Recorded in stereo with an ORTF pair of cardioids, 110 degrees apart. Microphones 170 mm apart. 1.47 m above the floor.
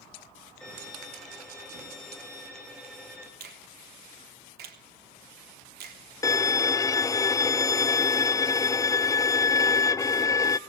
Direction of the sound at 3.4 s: 60° right.